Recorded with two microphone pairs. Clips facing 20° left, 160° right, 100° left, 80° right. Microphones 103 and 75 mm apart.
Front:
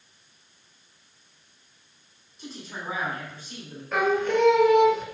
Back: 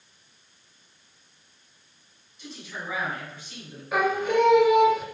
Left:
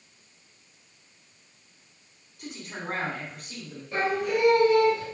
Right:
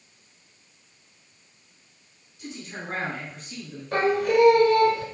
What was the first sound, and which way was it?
A man speaking, 70° left.